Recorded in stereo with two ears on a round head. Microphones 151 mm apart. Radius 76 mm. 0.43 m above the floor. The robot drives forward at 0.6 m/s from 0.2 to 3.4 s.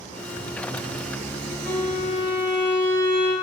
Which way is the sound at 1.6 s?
10° left (ahead or behind).